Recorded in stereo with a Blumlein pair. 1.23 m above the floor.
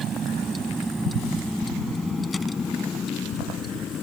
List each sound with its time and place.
0.0 s a vehicle: 25° right; by 4.0 s 25° left